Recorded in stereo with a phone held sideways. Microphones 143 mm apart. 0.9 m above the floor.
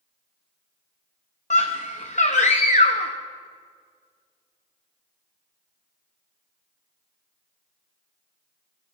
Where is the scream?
55° left (ahead or behind), 0.7 m.